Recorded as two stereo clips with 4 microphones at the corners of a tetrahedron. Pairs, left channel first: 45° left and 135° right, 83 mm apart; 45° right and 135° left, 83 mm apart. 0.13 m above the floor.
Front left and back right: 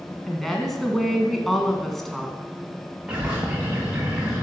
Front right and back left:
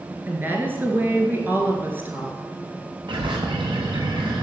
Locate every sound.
0.3 s a woman speaking: 130° left, 1.7 m
3.1 s a bird: 150° left, 3.5 m